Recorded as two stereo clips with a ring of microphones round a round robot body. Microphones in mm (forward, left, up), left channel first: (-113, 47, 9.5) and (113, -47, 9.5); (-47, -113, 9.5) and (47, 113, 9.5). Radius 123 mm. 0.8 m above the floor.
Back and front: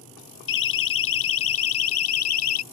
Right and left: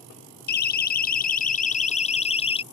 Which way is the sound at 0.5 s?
160° right.